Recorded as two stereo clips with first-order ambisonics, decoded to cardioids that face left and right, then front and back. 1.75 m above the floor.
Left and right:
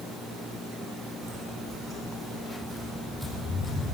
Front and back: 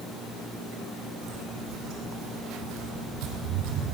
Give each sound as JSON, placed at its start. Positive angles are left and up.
{"t": 1.2, "sound": "footsteps", "azimuth_deg": -145, "distance_m": 6.0}